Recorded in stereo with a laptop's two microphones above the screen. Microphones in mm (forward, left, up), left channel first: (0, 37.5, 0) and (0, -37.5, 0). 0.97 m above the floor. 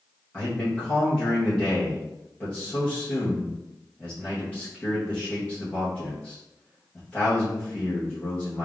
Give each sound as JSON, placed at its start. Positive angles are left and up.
{"t": 0.3, "sound": "a man speaking", "side_deg": 20, "distance_m": 0.9}